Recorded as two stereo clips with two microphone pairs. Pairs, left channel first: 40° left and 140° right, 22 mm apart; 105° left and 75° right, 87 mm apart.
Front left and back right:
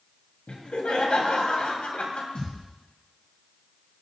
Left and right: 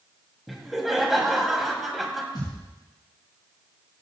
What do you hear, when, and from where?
0.5 s laughter: 15° left, 2.5 m
2.4 s a thud: 70° left, 6 m